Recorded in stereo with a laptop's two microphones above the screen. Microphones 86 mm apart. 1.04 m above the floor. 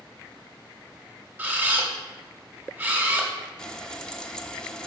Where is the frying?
10° left (ahead or behind), 0.9 m.